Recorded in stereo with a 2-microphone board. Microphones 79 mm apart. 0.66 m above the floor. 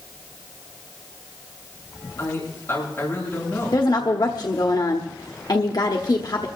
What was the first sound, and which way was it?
A man speaking, 30° left (ahead or behind).